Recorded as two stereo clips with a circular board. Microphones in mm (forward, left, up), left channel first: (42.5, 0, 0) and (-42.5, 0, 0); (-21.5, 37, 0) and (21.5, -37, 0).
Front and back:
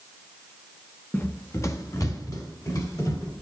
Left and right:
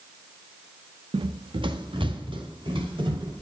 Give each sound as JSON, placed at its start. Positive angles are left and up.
{"t": 1.1, "sound": "running footsteps", "azimuth_deg": -65, "distance_m": 0.6}